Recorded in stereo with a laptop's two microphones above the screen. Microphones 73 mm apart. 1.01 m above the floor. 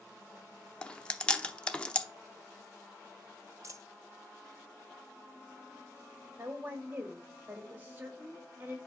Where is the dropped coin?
45° right (ahead or behind), 1.0 m.